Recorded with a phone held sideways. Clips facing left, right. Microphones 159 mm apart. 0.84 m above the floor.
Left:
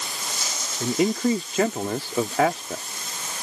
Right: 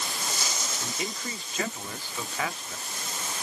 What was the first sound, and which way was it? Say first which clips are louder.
A man speaking: left 18 dB; 75° left (ahead or behind).